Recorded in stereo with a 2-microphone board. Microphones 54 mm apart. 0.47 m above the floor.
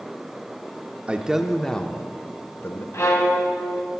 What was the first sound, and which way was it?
A man speaking, 25° right (ahead or behind).